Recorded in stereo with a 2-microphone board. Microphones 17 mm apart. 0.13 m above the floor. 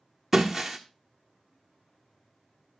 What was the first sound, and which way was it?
Breaking glass, 5° right (ahead or behind).